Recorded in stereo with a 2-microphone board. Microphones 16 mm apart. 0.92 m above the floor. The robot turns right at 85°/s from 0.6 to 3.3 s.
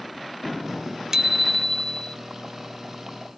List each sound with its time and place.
1.1 s a bicycle bell: 40° right; by 2.2 s 50° left